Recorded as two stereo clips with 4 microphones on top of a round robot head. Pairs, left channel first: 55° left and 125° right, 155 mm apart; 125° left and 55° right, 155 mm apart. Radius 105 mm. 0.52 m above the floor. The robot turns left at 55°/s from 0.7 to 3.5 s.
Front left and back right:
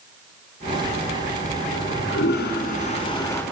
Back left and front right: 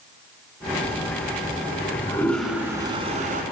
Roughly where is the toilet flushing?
Left.